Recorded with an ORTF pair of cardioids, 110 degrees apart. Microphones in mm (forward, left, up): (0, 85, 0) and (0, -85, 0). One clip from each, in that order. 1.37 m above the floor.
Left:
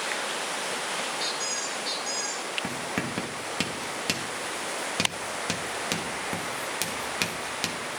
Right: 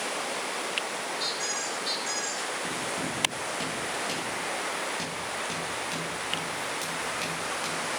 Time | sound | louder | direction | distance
1.2 | a squeak | left 1 dB | 10° left | 5 m
2.6 | writing | even | 60° left | 2 m